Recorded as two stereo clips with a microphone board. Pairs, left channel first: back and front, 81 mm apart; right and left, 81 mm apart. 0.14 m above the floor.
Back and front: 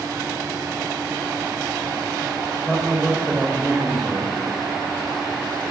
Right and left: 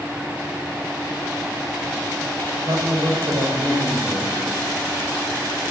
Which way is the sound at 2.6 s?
100° left.